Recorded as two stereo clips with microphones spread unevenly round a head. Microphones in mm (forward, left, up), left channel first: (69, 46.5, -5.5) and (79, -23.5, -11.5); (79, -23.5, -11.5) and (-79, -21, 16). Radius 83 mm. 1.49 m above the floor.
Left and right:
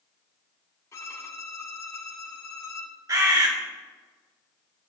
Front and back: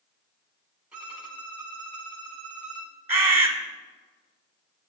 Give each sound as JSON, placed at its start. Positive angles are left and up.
{"t": 0.9, "sound": "a violin", "azimuth_deg": 110, "distance_m": 1.8}
{"t": 3.1, "sound": "a bird", "azimuth_deg": -115, "distance_m": 1.7}